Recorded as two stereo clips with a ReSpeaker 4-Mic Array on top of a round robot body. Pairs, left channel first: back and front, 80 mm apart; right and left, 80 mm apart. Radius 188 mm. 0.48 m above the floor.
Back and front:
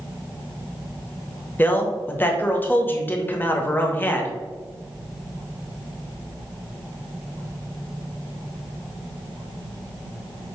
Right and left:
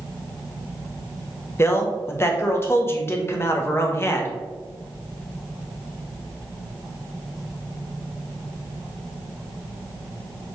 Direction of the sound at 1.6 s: 130° right.